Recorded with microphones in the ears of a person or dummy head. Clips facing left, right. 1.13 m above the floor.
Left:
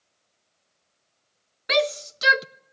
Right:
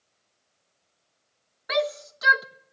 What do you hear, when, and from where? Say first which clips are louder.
1.7 s a shout: left 3 dB; 35° left (ahead or behind), 0.8 m